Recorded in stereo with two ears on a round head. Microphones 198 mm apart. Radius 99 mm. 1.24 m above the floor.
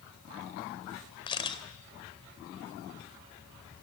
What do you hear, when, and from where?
1.3 s a camera shutter: 25° left (ahead or behind), 2 m